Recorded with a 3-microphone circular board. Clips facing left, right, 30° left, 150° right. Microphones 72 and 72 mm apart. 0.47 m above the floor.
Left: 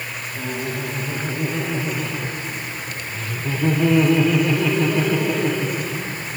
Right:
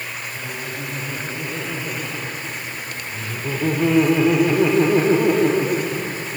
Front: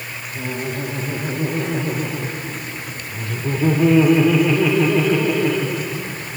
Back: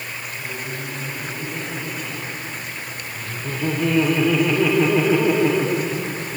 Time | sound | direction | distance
0.3 | laughter | 10° left | 3 m